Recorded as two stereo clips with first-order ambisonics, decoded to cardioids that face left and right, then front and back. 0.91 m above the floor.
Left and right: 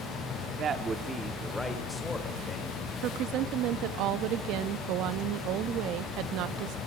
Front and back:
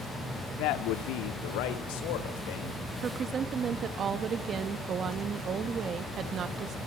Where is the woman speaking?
125° right, 1.2 m.